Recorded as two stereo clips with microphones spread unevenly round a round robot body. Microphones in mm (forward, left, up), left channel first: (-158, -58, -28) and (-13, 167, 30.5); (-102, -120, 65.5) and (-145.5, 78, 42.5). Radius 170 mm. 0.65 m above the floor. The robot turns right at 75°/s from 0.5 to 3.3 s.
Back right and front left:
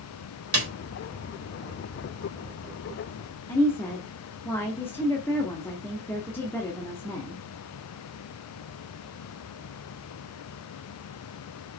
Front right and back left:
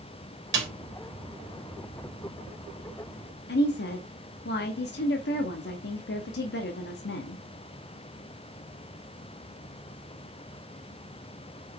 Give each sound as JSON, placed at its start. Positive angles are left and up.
{"t": 0.5, "sound": "a snare drum", "azimuth_deg": 95, "distance_m": 3.0}
{"t": 3.5, "sound": "a woman speaking", "azimuth_deg": -50, "distance_m": 0.8}